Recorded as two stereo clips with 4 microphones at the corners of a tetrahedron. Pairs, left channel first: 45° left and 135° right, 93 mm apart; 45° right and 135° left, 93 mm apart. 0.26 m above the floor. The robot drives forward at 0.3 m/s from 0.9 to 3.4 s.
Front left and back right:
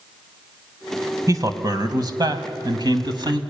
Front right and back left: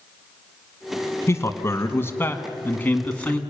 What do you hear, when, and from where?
1.3 s a man speaking: 95° right, 1.7 m; by 3.4 s 120° right, 1.9 m